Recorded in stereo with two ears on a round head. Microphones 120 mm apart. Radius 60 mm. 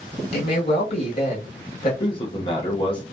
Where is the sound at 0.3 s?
45° left (ahead or behind), 1.6 m.